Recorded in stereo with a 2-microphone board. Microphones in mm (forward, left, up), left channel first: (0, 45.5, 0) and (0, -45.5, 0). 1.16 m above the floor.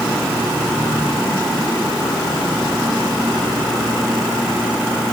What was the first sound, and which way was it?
Only background noise.